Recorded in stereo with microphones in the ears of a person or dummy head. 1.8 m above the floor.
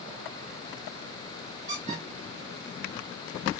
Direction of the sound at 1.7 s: 45° right (ahead or behind).